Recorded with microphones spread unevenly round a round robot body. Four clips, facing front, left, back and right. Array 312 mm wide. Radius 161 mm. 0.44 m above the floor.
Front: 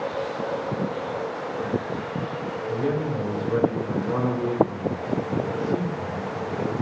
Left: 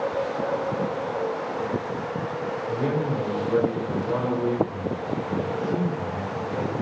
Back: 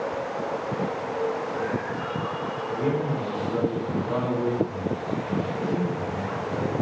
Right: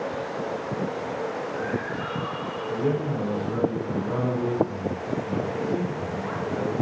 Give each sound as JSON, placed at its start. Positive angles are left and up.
{"t": 2.7, "sound": "a man speaking", "azimuth_deg": 95, "distance_m": 1.5}